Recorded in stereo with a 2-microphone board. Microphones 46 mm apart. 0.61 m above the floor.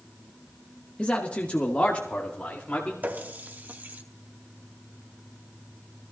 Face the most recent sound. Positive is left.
turn(degrees=-40)  # may be behind; listen again after turning